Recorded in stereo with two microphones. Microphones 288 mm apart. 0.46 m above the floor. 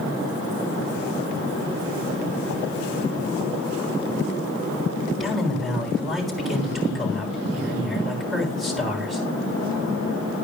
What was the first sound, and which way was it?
A man speaking, centre (ahead or behind).